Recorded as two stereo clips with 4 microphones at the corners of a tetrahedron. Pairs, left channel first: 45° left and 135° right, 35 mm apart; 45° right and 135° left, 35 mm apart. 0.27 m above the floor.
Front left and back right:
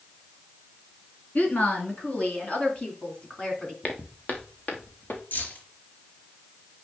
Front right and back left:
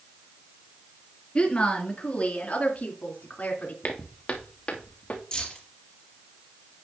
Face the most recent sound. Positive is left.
turn(degrees=15)